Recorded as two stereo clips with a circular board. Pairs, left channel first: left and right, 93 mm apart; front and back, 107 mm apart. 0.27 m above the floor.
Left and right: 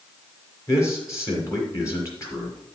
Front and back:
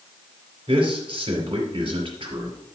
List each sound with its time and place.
0.7 s a man speaking: 145° left, 4.5 m